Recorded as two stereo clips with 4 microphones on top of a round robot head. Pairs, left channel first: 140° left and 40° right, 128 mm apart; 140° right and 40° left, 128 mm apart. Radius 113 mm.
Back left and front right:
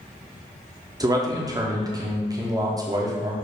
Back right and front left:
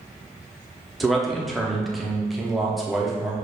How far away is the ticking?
No ticking in this recording.